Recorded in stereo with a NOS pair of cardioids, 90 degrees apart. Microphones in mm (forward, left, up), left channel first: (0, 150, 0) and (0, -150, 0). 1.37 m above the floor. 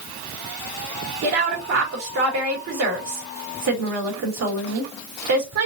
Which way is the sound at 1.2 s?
60° right.